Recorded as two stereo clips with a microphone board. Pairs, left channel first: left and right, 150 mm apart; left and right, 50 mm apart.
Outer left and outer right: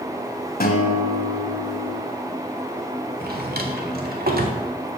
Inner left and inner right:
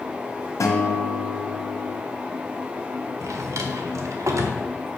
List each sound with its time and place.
0.6 s a guitar: 70° left (ahead or behind), 1.7 m
3.2 s a drawer: 75° right (ahead or behind), 1.4 m